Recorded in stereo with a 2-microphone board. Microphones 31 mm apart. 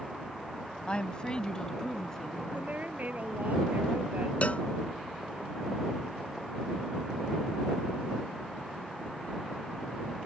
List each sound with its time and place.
0.9 s a woman speaking: 35° left (ahead or behind); by 2.4 s 15° left (ahead or behind)
2.5 s a woman speaking: 60° right (ahead or behind)
4.4 s a cowbell: 45° left (ahead or behind)